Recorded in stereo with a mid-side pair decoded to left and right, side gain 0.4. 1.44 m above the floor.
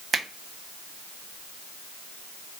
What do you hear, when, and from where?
0.1 s a finger snap: 40° right, 1.2 m